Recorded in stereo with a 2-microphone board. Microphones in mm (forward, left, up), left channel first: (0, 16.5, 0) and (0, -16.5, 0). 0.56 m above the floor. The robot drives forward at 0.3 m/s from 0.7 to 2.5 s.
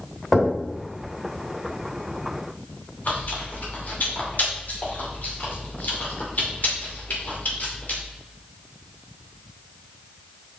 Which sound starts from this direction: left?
Chewing, at 3.0 s.